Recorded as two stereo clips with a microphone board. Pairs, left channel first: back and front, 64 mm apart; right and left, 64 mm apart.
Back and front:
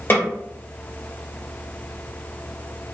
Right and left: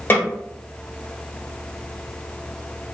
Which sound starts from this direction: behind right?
A snare drum, at 0.1 s.